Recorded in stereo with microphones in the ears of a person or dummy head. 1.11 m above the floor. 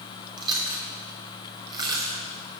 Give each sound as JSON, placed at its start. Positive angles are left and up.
{"t": 0.4, "sound": "chewing", "side_deg": -25, "distance_m": 2.5}